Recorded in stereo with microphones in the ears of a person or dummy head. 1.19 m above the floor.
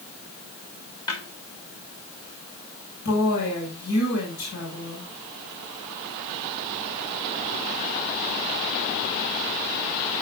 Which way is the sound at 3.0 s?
55° left (ahead or behind).